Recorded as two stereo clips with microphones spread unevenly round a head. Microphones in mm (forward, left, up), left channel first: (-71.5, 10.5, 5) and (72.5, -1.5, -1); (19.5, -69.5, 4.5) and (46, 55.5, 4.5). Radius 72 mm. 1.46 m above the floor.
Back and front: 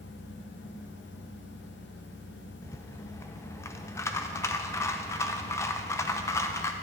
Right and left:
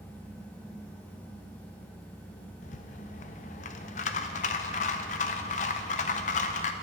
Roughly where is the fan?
Behind.